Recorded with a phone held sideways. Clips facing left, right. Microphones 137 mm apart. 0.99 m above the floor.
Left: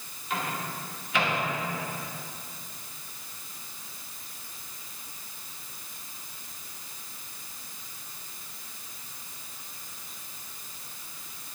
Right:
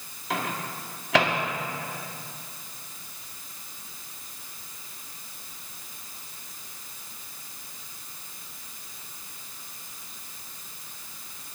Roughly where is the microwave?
Right.